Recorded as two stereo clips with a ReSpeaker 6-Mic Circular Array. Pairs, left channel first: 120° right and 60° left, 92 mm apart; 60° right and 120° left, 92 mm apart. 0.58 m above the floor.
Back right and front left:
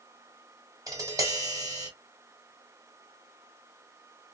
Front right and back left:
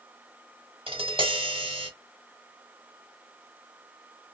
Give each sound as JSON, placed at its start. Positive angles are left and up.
{"t": 0.9, "sound": "tapping", "azimuth_deg": 110, "distance_m": 1.3}